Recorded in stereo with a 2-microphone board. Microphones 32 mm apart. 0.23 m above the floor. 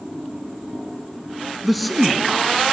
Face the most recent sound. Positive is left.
turn(degrees=-10)  # may be behind; listen again after turning